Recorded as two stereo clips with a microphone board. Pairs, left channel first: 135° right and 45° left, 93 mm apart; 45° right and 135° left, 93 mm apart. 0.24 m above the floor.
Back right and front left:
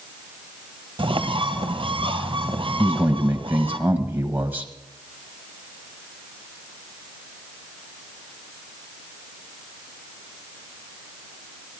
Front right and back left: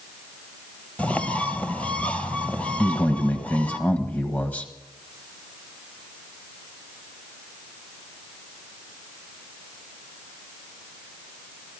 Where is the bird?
30° left, 1.2 m.